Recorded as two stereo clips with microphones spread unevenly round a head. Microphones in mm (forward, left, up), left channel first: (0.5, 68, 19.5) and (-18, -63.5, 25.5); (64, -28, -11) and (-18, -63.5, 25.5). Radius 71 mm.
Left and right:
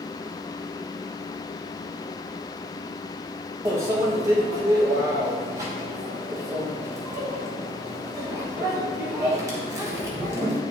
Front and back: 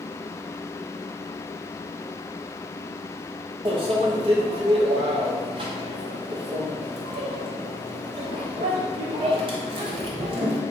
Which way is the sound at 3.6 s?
165° right.